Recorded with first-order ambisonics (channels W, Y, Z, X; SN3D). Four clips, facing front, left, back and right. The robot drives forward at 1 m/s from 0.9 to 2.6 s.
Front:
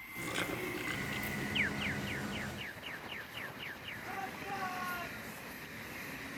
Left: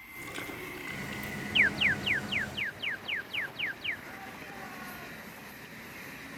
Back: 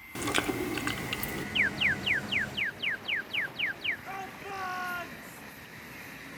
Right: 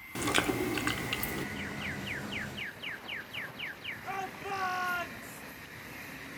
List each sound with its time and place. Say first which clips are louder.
0.1 s chewing: right 11 dB, back 8 dB; 135° right, 2.5 m; by 1.4 s 140° right, 3 m
1.6 s an alarm: left 12 dB, back 9 dB; 110° left, 0.5 m; by 4.0 s 160° left, 1.3 m
4.1 s a shout: right 7 dB, back 2 dB; 115° right, 4 m